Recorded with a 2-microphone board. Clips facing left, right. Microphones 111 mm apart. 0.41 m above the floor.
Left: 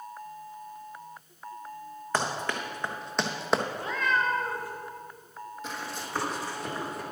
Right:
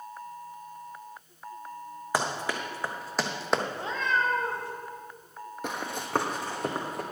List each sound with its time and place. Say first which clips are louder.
2.1 s running footsteps: even; 10° right (ahead or behind), 1.4 m; by 3.6 s centre (ahead or behind), 0.7 m
3.7 s a cat meowing: left 1 dB; 25° right (ahead or behind), 1.2 m
5.6 s running footsteps: right 4 dB; 60° right (ahead or behind), 0.9 m; by 7.0 s 50° right (ahead or behind), 1.8 m